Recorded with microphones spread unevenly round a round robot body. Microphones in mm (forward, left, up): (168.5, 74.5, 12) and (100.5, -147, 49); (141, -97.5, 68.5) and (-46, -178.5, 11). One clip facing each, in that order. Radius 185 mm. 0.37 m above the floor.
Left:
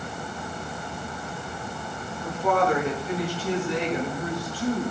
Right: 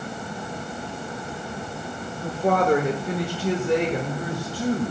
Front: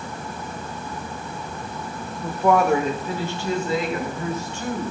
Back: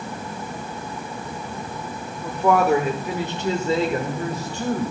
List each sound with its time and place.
2.2 s a woman speaking: 85° right, 1.1 m; by 4.9 s 130° right, 2 m